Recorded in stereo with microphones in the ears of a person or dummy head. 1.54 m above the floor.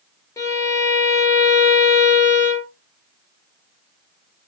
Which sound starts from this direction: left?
A violin, at 0.4 s.